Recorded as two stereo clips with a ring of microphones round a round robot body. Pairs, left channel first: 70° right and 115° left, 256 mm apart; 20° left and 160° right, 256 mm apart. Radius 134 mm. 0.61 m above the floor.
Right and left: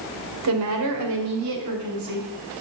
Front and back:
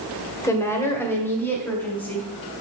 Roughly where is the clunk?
No clunk in this recording.